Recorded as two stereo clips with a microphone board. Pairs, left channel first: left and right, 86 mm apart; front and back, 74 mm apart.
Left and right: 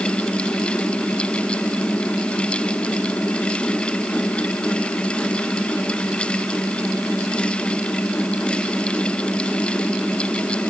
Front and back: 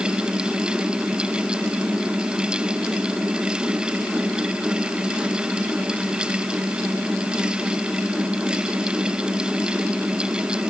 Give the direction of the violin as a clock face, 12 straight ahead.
I don't hear a violin.